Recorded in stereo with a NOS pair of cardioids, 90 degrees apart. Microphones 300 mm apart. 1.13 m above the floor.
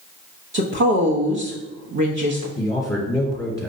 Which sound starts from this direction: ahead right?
A woman speaking, at 0.5 s.